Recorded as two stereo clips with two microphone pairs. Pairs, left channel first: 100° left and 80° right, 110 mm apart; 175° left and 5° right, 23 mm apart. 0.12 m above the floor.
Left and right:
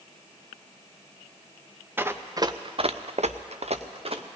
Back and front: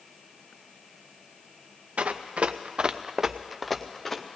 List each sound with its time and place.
2.0 s running footsteps: 10° right, 1.0 m; by 4.2 s 110° right, 1.4 m